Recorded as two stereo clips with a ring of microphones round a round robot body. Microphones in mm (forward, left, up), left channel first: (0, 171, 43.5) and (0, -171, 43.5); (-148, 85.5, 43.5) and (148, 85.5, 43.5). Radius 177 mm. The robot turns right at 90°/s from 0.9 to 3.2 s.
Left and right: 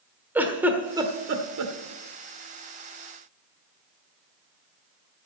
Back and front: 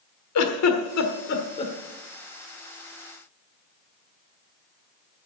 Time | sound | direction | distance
0.3 | a giggle | 175° right | 1.5 m